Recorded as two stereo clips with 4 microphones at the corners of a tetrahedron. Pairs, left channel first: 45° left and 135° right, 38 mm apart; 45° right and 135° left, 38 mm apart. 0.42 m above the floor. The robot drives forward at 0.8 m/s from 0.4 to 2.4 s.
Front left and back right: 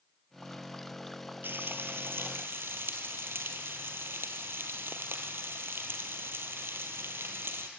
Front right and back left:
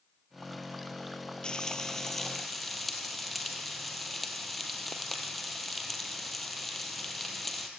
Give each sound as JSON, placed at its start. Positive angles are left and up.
{"t": 1.4, "sound": "frying", "azimuth_deg": -110, "distance_m": 1.8}